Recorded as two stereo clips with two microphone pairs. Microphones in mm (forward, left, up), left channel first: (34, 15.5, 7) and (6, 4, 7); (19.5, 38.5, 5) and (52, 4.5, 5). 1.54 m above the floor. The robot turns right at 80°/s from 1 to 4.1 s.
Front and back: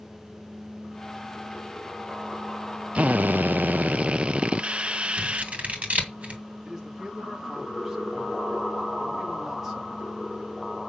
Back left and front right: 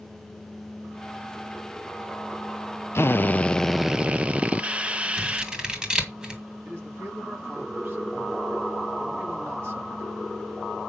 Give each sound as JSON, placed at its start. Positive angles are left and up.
{"t": 3.0, "sound": "a drill", "azimuth_deg": 160, "distance_m": 0.6}
{"t": 5.2, "sound": "scissors", "azimuth_deg": -115, "distance_m": 2.0}
{"t": 6.7, "sound": "a man speaking", "azimuth_deg": -85, "distance_m": 3.0}